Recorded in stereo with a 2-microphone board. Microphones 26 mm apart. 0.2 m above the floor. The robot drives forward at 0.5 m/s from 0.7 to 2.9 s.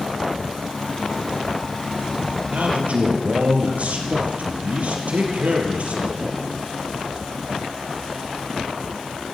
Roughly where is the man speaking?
Right.